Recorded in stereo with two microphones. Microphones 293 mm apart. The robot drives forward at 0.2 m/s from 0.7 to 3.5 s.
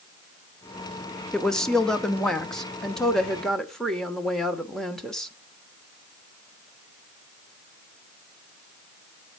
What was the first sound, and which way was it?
A woman speaking, centre (ahead or behind).